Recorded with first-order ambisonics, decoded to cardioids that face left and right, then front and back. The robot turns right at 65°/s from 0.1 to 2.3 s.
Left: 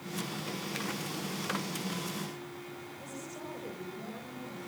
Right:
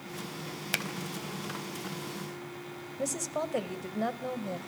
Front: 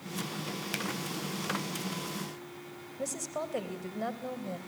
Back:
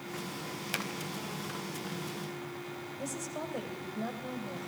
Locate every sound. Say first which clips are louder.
0.7 s a finger snap: right 9 dB, back 1 dB; 95° right, 3.5 m; by 0.8 s 85° right, 3.5 m
3.0 s a woman speaking: right 15 dB, front 5 dB; 70° right, 3.5 m